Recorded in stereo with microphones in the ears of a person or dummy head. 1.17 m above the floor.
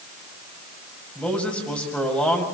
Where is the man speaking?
5° left (ahead or behind), 7.5 m.